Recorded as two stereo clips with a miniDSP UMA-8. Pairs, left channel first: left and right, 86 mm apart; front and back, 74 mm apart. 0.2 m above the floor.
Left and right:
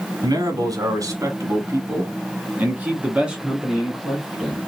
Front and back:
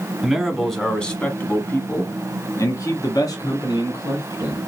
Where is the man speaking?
100° right, 1.6 m; by 4.6 s straight ahead, 2.5 m.